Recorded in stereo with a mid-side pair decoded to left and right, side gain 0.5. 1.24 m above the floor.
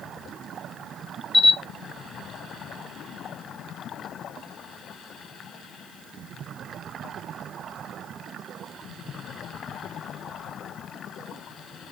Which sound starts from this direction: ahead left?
A camera shutter, at 1.3 s.